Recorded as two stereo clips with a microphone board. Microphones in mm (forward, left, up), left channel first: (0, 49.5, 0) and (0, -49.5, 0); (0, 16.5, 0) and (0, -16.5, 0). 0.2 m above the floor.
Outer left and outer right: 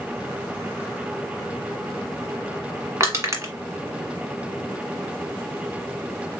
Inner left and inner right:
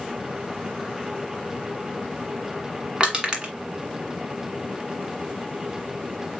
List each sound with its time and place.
3.0 s crushing: 35° right (ahead or behind), 1.5 m